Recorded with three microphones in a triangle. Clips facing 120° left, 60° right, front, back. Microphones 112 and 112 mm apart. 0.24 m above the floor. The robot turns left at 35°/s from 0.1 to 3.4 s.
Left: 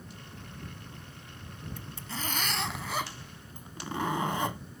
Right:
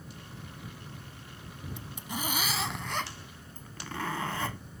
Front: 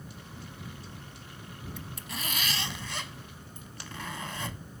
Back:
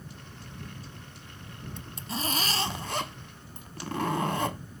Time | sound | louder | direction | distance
1.8 | a zipper | right 3 dB, back 7 dB | 115° right | ?